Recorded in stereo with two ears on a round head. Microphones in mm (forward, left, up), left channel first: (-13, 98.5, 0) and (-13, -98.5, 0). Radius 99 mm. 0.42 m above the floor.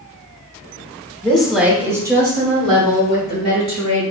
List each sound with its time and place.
1.2 s a woman speaking: 5° left (ahead or behind), 0.8 m; by 4.0 s 30° right (ahead or behind), 2.5 m